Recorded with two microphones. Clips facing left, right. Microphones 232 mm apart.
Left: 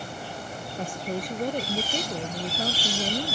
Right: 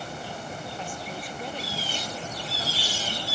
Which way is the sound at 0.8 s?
45° left (ahead or behind).